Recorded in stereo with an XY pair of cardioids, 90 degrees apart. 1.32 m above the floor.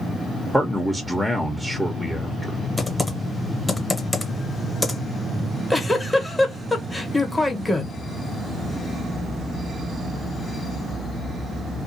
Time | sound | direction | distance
0.5 | a man speaking | 5° left | 0.9 m
2.8 | typing on a keyboard | 20° left | 1.2 m
5.4 | a giggle | 15° left | 1.2 m